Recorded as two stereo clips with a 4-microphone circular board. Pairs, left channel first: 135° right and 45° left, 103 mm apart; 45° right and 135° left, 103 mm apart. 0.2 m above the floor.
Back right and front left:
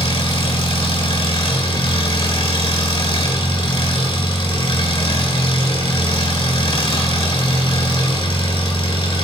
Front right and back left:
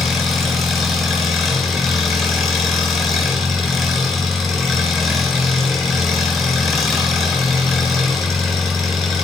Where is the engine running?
135° right, 3 m.